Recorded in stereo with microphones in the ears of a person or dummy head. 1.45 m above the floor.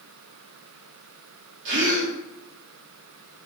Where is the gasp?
60° right (ahead or behind), 0.9 m.